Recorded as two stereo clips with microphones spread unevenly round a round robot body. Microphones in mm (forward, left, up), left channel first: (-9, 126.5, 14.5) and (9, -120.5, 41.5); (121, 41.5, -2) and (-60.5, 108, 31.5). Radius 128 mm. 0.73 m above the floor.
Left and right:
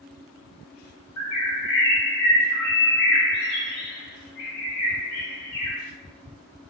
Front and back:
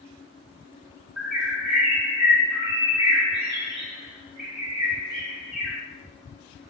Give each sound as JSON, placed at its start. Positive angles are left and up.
{"t": 1.2, "sound": "a bird", "azimuth_deg": 75, "distance_m": 1.6}